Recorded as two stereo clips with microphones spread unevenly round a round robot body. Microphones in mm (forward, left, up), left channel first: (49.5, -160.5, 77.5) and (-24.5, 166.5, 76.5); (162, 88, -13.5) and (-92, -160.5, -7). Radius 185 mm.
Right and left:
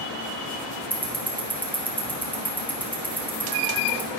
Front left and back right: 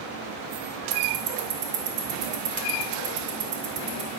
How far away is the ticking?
About 1.3 m.